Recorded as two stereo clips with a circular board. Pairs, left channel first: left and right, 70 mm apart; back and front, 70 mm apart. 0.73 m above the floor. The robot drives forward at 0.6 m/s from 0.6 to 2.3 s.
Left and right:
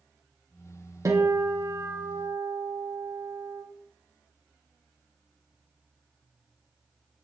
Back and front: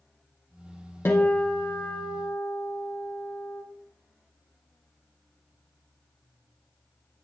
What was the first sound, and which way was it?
A guitar, 125° right.